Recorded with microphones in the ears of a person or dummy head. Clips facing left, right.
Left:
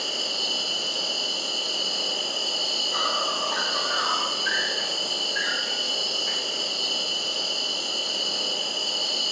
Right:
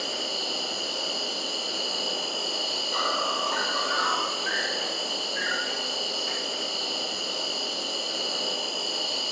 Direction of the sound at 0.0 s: 5° left (ahead or behind).